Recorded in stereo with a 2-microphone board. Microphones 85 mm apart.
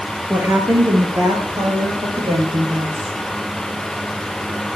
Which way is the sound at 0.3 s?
20° right (ahead or behind).